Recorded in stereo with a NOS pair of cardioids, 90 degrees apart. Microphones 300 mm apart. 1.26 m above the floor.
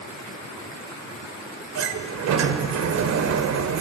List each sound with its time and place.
1.8 s a sliding door: 65° right, 2 m